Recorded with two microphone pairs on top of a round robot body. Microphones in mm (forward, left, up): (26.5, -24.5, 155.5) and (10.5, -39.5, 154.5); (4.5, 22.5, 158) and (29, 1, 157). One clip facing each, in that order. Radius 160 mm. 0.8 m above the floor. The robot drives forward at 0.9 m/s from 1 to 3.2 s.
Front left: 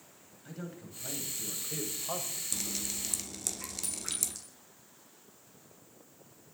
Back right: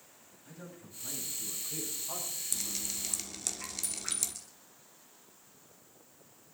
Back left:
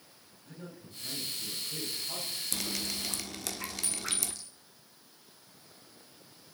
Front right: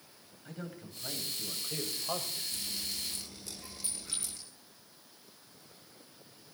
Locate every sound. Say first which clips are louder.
0.5 s a man speaking: front left 5 dB, front right 3 dB; 10° right, 5 m; by 2.4 s 15° right, 4 m
2.5 s dripping: front left 1 dB, back left 3 dB; 125° left, 0.9 m; by 4.3 s 145° left, 1.4 m
3.8 s a clink: even, back left 4 dB; 120° left, 4 m